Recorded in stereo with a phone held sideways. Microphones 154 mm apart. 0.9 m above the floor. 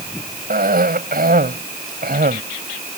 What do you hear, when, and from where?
0.5 s a cough: 75° right (ahead or behind)